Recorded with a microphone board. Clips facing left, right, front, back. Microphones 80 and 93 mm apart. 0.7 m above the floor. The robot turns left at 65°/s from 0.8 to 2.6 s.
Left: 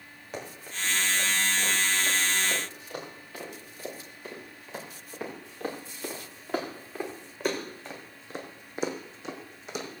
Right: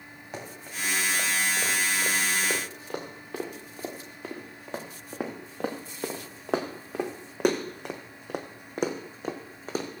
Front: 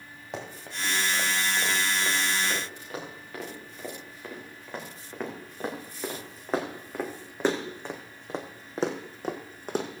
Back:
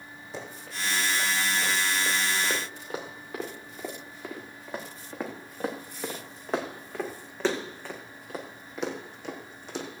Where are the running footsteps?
Straight ahead, 6.5 m; by 10.0 s 35° right, 2.5 m.